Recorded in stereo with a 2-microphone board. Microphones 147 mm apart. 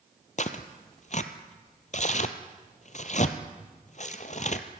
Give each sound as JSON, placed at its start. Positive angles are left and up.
{"t": 0.4, "sound": "tearing paper", "side_deg": 55, "distance_m": 1.1}